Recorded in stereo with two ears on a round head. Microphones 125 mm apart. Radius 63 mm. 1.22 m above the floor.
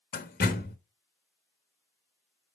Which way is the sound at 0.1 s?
65° left (ahead or behind).